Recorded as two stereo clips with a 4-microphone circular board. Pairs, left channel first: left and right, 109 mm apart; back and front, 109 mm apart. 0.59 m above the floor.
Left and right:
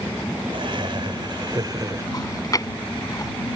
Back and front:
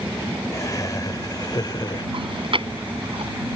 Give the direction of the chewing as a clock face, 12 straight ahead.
11 o'clock.